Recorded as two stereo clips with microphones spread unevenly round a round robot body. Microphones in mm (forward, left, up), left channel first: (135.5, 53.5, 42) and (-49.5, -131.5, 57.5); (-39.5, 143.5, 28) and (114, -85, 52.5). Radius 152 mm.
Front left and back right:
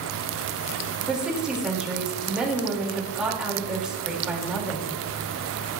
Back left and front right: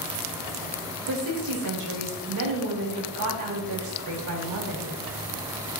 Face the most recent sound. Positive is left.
turn(degrees=-45)